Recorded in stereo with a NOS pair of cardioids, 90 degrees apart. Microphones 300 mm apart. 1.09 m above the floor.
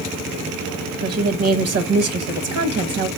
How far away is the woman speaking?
About 0.9 m.